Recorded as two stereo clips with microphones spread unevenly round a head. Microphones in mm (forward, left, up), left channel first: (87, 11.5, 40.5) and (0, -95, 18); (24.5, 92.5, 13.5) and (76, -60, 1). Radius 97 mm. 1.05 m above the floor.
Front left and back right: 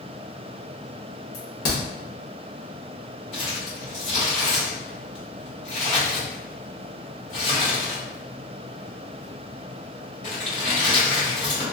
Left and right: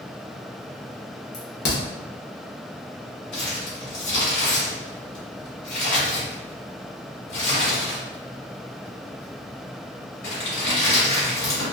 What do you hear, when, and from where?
1.3 s a crack: 90° left, 1.1 m
3.3 s crumpling: 110° left, 1.9 m